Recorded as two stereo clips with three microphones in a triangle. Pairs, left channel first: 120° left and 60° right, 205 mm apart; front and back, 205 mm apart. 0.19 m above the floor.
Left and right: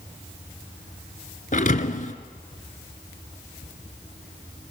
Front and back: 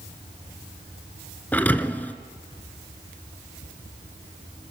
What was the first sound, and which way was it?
A thud, 80° left.